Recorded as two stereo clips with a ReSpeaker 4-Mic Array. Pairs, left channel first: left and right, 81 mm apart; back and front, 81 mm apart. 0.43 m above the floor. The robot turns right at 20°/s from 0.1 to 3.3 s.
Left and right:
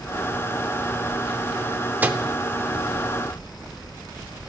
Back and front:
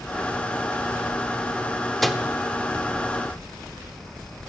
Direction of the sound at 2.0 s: 95° right.